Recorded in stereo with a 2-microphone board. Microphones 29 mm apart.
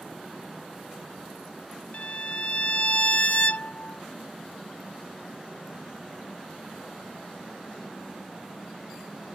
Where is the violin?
40° left (ahead or behind).